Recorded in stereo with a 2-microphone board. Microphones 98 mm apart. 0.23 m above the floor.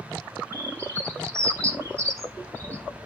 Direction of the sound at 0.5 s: 30° right (ahead or behind).